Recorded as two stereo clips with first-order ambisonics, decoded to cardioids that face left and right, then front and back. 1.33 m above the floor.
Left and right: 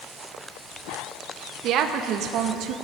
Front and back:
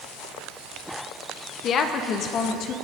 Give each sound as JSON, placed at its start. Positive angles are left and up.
{"t": 1.6, "sound": "a woman speaking", "azimuth_deg": -50, "distance_m": 1.1}